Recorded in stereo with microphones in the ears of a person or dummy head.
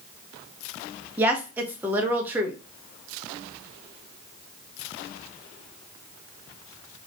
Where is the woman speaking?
10° right (ahead or behind), 1.1 m.